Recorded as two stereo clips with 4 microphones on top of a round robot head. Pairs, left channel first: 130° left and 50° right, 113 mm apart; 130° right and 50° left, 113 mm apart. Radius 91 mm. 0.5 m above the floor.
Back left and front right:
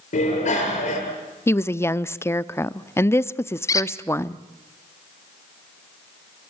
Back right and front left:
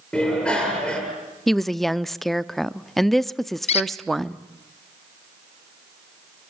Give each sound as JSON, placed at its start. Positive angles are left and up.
{"t": 0.1, "sound": "a bicycle bell", "azimuth_deg": 145, "distance_m": 8.5}
{"t": 1.5, "sound": "a woman speaking", "azimuth_deg": 145, "distance_m": 0.7}
{"t": 3.7, "sound": "a squeak", "azimuth_deg": -165, "distance_m": 0.6}